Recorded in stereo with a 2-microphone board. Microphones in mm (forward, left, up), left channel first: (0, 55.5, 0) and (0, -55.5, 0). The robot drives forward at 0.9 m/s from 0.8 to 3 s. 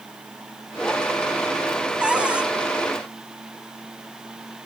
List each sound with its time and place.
2.0 s a cupboard door: 10° right (ahead or behind)